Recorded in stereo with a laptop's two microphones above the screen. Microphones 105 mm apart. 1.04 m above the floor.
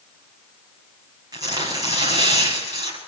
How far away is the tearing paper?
About 6.5 m.